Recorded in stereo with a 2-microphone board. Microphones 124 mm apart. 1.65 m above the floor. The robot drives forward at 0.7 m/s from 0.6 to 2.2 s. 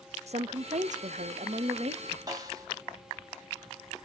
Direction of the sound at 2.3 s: 30° right (ahead or behind).